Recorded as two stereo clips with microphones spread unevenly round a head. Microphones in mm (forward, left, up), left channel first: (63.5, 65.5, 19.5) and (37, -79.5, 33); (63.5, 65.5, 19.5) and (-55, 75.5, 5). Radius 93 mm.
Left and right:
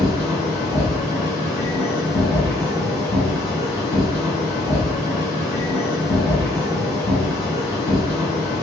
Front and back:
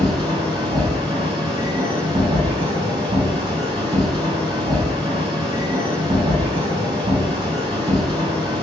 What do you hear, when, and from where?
0.0 s a machine running: 145° left, 1.5 m